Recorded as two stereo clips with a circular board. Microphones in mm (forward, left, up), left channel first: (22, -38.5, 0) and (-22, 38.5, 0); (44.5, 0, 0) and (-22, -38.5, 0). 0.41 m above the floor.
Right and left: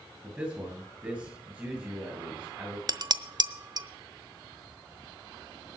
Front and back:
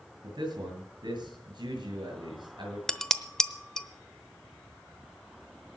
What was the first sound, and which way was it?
A man speaking, 165° right.